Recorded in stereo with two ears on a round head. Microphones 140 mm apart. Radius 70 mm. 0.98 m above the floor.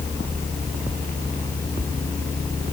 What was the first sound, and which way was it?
Only background noise.